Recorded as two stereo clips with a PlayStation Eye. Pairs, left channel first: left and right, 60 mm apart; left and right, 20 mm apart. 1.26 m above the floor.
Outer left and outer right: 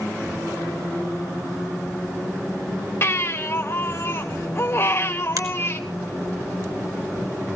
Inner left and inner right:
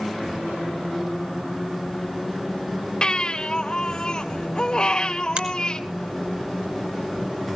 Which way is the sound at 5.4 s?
65° right (ahead or behind).